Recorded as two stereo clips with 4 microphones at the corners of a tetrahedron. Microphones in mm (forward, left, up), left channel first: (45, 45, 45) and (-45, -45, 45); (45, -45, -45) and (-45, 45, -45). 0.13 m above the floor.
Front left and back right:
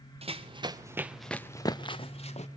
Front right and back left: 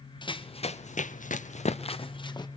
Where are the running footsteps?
100° right, 1.6 m; by 2.5 s 10° left, 1.9 m.